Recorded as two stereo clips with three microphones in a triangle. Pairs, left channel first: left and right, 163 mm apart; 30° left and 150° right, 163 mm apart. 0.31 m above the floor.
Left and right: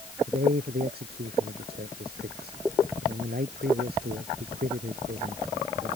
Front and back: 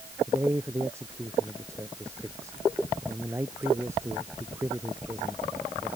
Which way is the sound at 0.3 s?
75° right.